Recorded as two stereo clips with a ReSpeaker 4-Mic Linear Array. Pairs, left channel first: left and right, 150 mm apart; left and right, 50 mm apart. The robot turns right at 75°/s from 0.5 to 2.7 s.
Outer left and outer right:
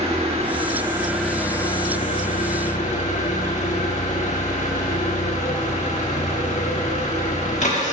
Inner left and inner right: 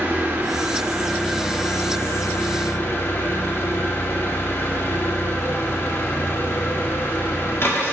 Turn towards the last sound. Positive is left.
turn(degrees=110)